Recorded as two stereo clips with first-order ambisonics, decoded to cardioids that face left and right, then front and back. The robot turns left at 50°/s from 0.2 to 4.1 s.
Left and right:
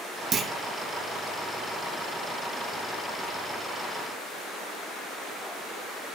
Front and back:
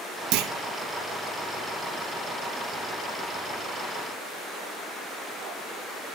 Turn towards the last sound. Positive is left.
turn(degrees=20)